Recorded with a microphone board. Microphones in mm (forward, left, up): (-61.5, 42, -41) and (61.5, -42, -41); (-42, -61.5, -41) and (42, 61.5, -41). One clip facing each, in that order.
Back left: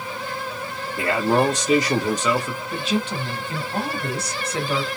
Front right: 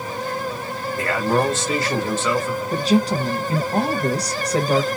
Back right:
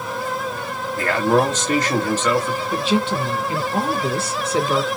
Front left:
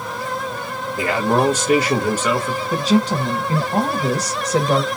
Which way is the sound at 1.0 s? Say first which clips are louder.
Back left 1 dB, even; 110° left.